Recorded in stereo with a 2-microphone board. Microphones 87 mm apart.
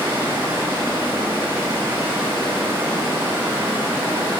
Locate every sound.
0.0 s running water: 25° right (ahead or behind), 1.9 m